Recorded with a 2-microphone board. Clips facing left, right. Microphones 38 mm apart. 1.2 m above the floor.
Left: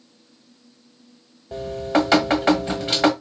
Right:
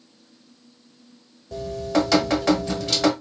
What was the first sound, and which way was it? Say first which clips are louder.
Dripping: left 2 dB; 30° left (ahead or behind).